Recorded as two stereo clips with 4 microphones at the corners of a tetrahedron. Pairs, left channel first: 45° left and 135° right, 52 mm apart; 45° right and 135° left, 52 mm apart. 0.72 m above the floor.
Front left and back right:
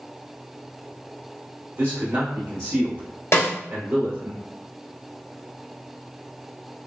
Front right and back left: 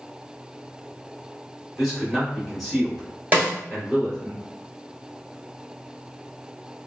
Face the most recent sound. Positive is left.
turn(degrees=75)